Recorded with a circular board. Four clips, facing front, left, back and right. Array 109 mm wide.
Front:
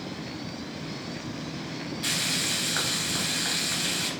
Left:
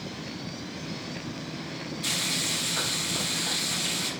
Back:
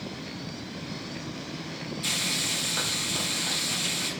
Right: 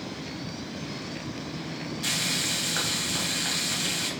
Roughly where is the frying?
Ahead right.